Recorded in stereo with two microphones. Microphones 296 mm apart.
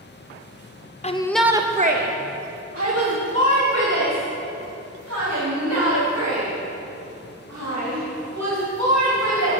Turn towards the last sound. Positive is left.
turn(degrees=-80)